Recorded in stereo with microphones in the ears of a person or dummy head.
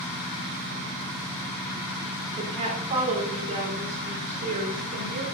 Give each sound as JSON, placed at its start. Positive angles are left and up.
{"t": 2.4, "sound": "a woman speaking", "side_deg": -25, "distance_m": 4.0}